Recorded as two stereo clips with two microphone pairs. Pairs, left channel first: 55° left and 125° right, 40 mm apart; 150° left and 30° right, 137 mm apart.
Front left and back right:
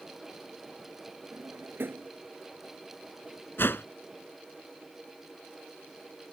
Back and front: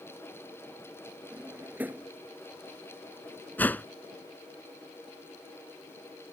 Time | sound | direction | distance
1.3 | a drawer | 105° right | ?
3.6 | a whoosh | 75° left | ?